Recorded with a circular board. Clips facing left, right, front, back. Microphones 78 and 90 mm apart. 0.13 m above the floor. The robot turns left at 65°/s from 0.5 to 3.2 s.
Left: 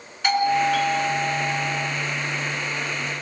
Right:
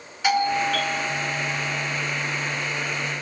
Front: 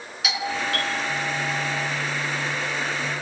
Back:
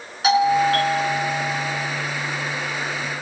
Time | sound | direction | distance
0.2 | a doorbell | straight behind | 2.5 m